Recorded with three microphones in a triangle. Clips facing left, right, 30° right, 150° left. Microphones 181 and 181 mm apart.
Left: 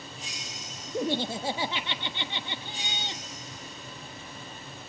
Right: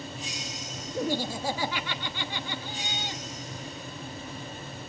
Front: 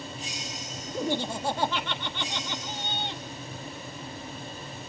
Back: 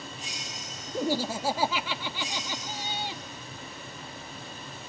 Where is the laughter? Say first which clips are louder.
Left 1 dB, back 1 dB; 75° left, 1.2 m.